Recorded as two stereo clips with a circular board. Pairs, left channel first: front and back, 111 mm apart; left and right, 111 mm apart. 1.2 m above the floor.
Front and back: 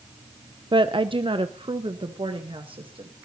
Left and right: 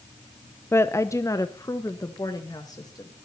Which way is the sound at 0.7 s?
150° left.